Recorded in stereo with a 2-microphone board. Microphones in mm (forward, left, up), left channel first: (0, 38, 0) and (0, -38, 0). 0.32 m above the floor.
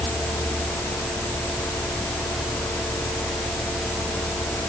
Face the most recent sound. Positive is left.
No sound to turn to.